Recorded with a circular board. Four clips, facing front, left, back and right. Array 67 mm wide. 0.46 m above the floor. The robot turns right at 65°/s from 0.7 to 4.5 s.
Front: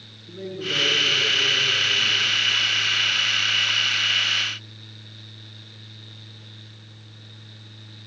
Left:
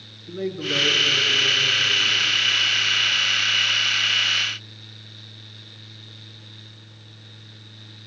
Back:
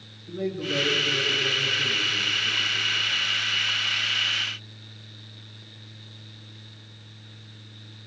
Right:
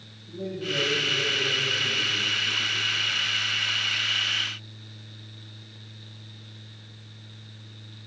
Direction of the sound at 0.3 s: 100° left.